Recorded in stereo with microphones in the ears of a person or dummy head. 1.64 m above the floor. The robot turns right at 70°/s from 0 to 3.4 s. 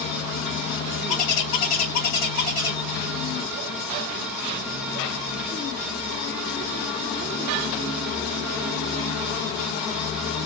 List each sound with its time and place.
1.1 s a bird: 40° left, 1.0 m; by 2.8 s 155° left, 1.0 m